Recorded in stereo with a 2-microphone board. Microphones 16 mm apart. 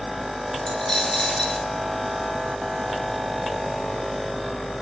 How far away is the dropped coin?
About 0.8 m.